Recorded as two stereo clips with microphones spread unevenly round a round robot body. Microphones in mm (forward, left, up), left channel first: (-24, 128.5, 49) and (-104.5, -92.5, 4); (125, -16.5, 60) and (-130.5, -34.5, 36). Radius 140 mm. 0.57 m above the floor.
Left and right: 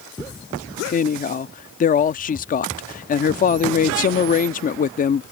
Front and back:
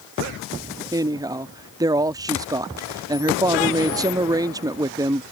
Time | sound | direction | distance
0.9 | a woman speaking | 120° left | ?